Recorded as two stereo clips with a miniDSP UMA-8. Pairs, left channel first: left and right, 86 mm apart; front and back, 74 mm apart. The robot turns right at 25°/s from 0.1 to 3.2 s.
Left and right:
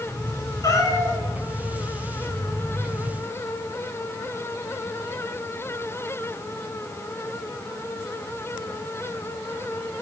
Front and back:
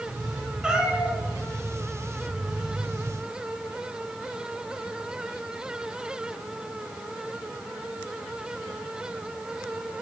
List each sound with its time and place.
0.6 s a cat meowing: 105° left, 1.3 m; by 1.2 s 120° left, 1.3 m